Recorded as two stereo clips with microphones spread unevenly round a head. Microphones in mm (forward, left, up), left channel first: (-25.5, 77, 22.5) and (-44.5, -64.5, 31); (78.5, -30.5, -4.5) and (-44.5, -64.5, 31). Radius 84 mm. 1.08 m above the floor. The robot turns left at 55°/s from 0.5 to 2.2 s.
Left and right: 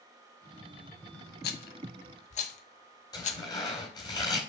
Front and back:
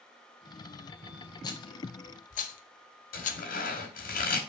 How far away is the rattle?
About 0.9 m.